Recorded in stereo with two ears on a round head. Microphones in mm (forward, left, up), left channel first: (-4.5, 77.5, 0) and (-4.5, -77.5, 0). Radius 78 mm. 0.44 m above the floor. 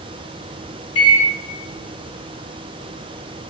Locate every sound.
0.9 s a microwave: 35° left (ahead or behind), 1.7 m